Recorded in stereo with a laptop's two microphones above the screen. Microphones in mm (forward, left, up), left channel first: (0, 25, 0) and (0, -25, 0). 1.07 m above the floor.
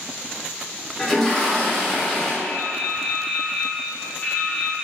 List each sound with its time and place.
1.0 s a toilet flushing: 10° left (ahead or behind), 0.6 m
2.4 s dripping: 15° left (ahead or behind), 1.4 m